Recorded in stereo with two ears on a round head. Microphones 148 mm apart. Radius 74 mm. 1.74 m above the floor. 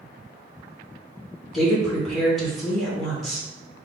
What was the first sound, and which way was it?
A woman speaking, centre (ahead or behind).